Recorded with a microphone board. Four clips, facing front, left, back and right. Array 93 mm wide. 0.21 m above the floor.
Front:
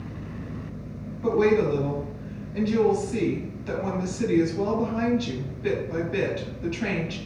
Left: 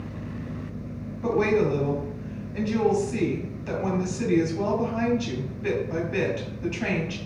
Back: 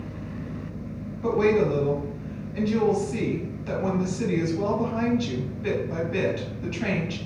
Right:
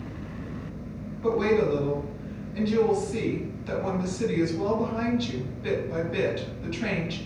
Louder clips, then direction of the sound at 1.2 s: Left 1 dB, even; 105° left.